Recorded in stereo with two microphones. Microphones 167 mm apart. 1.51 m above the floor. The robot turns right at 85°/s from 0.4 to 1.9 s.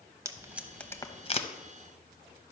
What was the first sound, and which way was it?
Tape being pulled, 15° right (ahead or behind).